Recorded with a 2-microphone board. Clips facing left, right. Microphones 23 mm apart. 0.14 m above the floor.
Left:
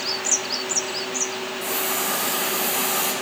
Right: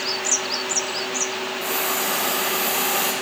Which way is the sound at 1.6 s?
45° right (ahead or behind).